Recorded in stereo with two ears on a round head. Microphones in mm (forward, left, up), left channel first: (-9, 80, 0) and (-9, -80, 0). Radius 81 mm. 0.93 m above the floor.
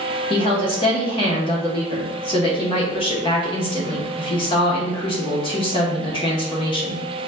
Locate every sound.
0.3 s a woman speaking: 30° left (ahead or behind), 0.8 m